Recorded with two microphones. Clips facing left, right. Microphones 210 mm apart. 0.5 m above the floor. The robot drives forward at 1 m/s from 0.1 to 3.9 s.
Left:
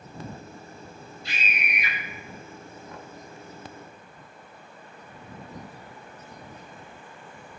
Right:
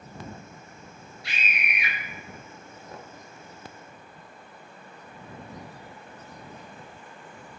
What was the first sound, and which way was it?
A scream, 85° right.